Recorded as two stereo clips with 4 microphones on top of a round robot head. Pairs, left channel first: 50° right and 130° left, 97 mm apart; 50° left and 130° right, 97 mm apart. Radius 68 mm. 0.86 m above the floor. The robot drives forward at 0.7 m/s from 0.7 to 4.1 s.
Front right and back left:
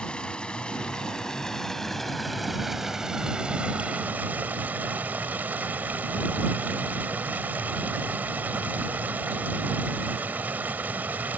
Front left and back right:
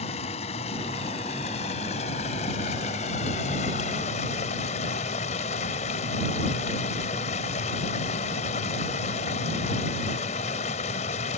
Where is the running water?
30° left; by 11.4 s 55° left.